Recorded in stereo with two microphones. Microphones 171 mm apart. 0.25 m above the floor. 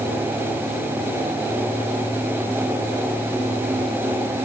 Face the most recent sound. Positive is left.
No sound to turn to.